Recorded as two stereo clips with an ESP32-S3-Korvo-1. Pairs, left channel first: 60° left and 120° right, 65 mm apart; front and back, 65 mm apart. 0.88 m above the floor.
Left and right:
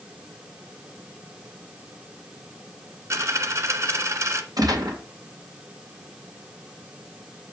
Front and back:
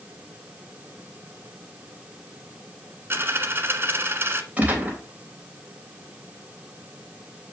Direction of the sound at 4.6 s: 115° right.